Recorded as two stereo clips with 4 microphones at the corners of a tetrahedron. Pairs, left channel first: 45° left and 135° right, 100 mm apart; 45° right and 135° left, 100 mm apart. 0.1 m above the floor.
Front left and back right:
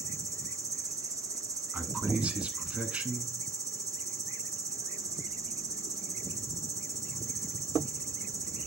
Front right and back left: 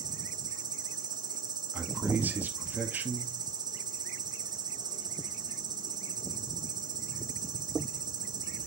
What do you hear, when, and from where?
0.0 s an insect: 175° left, 0.8 m
1.7 s a man speaking: 165° left, 1.1 m